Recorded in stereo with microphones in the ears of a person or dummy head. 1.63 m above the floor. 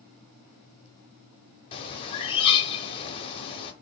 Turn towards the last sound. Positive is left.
turn(degrees=30)  # may be behind; listen again after turning